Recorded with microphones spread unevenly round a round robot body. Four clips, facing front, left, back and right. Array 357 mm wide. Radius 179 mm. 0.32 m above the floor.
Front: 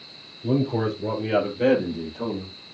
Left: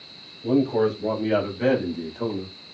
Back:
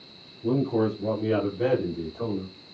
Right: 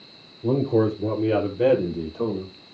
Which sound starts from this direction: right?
A man speaking, at 0.4 s.